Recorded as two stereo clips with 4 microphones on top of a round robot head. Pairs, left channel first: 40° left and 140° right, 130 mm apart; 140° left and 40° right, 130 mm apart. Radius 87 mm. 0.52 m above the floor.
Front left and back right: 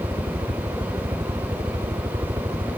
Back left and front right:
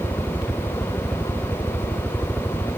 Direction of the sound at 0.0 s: 150° right.